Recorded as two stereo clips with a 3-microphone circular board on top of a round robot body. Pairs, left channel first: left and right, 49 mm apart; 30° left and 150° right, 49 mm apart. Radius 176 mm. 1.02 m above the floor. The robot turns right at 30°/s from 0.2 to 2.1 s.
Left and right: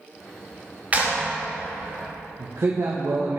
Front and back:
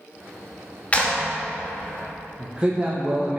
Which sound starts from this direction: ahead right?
A clap, at 0.9 s.